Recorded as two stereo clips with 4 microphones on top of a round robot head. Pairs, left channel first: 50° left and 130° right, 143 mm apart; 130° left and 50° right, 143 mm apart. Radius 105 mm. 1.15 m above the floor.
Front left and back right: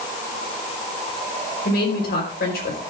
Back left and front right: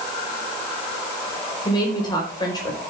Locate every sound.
1.6 s a woman speaking: 65° left, 5 m